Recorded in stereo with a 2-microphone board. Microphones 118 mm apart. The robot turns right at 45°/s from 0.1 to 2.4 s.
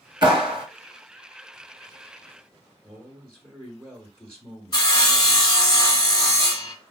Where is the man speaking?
15° right (ahead or behind), 1.4 m.